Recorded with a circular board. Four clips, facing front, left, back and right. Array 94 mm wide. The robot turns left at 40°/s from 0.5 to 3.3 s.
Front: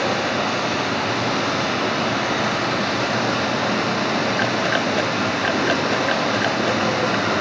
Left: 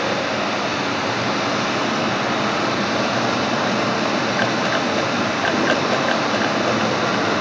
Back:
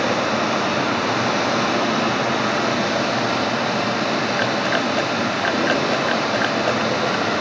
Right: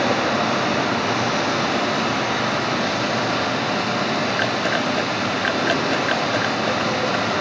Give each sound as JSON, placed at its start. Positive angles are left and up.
{"t": 0.0, "sound": "running water", "azimuth_deg": -140, "distance_m": 4.0}